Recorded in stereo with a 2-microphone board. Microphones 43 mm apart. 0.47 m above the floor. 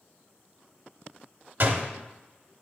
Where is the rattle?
I don't hear a rattle.